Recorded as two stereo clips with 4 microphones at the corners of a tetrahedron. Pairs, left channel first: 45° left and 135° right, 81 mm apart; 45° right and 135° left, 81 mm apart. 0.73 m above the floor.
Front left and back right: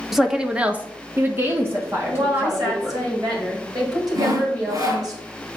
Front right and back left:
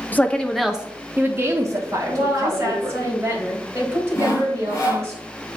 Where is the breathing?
No breathing in this recording.